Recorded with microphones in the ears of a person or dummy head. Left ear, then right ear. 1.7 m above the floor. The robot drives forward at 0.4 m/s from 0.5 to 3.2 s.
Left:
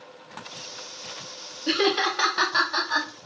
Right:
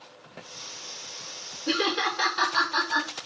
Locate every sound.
1.7 s laughter: 15° left (ahead or behind), 0.7 m; by 3.1 s 10° left (ahead or behind), 1.2 m